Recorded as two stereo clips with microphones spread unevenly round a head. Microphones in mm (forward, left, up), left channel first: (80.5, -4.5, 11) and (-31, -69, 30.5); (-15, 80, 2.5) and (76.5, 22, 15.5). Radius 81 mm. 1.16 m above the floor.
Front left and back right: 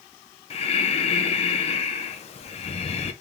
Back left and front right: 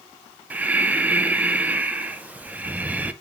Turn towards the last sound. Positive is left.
turn(degrees=45)